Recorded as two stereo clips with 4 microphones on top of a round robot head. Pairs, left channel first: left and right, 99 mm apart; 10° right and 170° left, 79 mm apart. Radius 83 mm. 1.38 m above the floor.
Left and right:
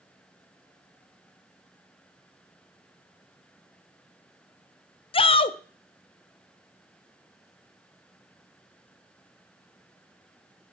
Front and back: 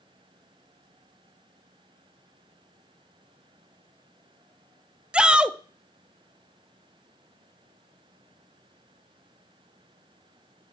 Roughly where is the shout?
Left.